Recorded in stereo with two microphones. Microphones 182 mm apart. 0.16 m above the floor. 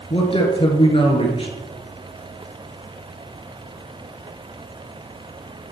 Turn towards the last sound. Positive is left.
turn(degrees=30)  # may be behind; listen again after turning